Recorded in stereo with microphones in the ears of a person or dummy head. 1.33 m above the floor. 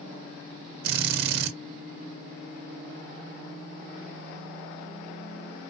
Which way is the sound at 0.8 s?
60° right (ahead or behind).